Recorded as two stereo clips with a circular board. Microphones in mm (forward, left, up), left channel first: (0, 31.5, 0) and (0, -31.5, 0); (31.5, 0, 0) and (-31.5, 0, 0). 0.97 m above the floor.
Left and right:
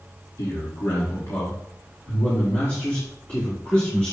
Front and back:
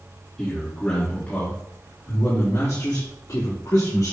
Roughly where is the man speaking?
Left.